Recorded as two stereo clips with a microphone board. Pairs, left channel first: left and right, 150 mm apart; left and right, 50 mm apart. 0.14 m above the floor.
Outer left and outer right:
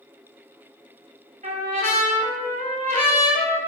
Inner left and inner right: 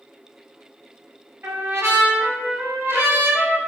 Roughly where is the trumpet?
Right.